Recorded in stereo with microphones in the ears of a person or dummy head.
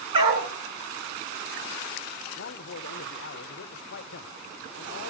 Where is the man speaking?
60° left (ahead or behind), 0.6 m.